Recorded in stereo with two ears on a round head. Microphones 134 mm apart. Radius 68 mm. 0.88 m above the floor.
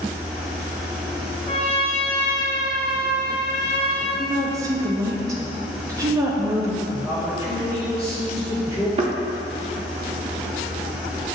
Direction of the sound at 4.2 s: 20° right (ahead or behind).